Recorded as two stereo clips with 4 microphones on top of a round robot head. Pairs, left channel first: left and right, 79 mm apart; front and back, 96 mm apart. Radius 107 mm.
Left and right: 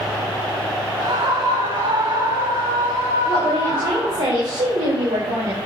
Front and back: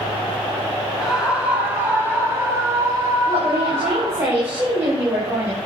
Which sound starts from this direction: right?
A scream, at 1.0 s.